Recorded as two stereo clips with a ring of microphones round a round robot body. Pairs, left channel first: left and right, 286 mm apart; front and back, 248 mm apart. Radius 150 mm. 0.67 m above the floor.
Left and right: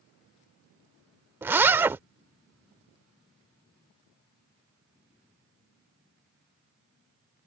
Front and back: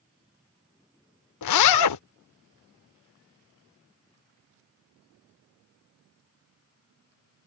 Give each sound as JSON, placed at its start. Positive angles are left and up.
{"t": 1.4, "sound": "a zipper", "azimuth_deg": -5}